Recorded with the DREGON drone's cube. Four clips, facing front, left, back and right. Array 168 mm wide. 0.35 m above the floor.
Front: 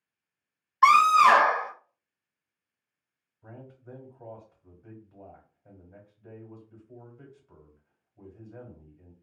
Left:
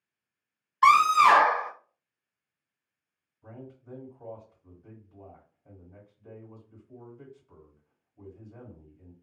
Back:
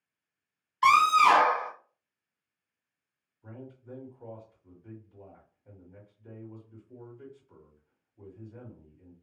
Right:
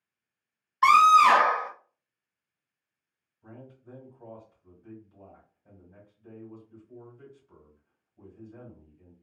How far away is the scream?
About 1.5 m.